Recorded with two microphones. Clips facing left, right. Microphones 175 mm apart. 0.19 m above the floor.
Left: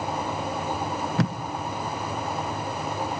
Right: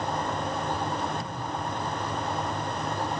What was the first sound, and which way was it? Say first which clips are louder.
Tape being pulled: left 10 dB; 80° left.